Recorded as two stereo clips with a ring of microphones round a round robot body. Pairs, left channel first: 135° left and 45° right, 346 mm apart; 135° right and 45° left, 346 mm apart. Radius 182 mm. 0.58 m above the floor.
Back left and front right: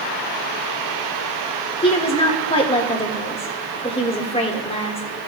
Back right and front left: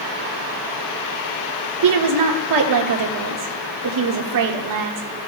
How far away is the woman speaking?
About 1.5 m.